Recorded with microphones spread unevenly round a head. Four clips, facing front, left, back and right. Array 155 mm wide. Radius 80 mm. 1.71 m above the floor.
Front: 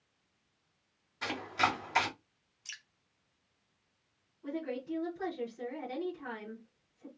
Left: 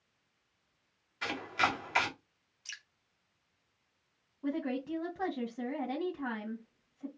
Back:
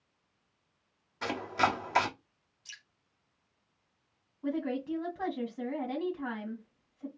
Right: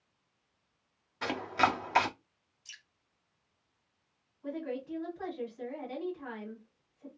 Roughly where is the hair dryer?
I don't hear a hair dryer.